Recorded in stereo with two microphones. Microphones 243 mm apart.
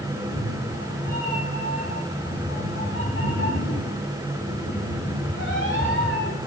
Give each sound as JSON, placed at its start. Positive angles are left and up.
{"t": 0.1, "sound": "a cat meowing", "side_deg": 60, "distance_m": 7.0}